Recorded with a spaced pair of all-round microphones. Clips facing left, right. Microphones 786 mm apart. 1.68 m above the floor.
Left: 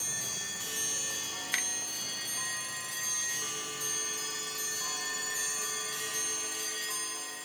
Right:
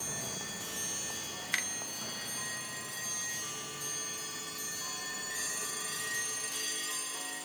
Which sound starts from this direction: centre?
A finger snap, at 1.5 s.